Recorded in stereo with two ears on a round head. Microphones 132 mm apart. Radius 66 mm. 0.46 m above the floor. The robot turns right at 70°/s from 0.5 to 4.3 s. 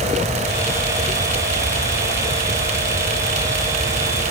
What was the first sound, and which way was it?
Only background noise.